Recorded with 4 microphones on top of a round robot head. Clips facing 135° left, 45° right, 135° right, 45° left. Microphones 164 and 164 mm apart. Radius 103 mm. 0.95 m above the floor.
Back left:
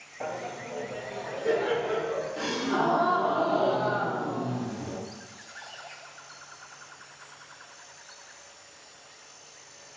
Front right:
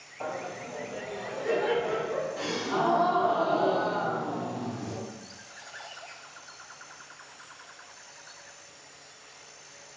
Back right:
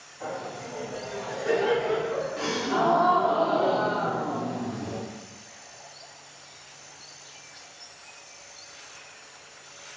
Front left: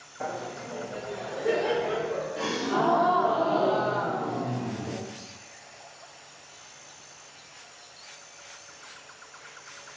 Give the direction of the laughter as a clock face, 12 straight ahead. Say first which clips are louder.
Back left 1 dB, even; 10 o'clock.